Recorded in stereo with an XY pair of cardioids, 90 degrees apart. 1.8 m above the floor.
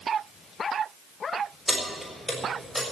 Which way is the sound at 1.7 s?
5° left.